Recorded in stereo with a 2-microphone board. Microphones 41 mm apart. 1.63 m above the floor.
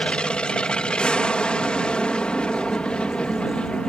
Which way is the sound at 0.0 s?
25° left (ahead or behind).